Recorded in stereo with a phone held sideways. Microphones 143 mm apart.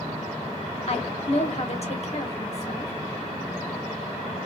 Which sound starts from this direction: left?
A woman speaking, at 0.9 s.